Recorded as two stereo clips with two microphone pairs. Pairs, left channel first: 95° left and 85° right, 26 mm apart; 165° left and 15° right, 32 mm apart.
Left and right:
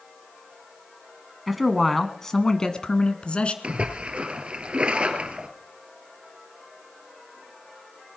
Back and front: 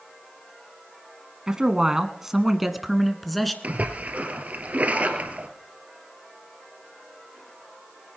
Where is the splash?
40° right, 2 m.